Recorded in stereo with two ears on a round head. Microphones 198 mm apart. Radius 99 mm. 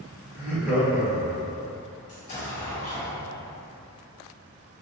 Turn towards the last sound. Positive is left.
turn(degrees=35)  # may be behind; listen again after turning